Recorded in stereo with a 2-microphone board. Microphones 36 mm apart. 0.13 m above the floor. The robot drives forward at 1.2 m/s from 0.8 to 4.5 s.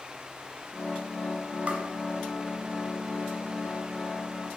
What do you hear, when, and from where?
1.7 s tapping: 30° right (ahead or behind), 2.0 m